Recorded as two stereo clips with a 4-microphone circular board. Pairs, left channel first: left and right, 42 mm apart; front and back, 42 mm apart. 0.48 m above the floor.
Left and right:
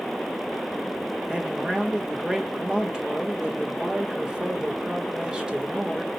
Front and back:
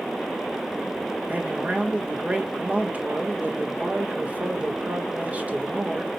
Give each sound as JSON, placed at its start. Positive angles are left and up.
{"t": 1.3, "sound": "a man speaking", "azimuth_deg": -150, "distance_m": 1.3}